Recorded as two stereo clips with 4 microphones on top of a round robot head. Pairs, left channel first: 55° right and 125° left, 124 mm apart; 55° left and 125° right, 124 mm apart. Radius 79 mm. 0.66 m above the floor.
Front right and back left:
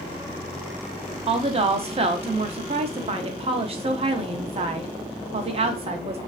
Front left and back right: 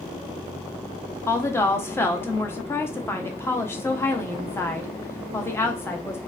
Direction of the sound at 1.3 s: 120° left.